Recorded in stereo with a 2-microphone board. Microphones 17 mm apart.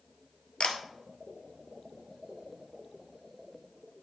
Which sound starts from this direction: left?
A camera shutter, at 0.6 s.